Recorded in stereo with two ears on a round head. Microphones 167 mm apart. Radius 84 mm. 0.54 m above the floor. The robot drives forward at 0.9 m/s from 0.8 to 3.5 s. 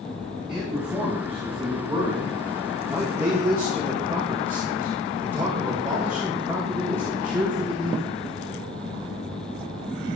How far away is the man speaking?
About 5 m.